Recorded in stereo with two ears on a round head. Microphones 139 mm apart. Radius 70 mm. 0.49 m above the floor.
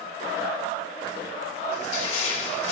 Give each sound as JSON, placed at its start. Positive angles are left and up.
{"t": 1.7, "sound": "crushing", "side_deg": 45, "distance_m": 2.0}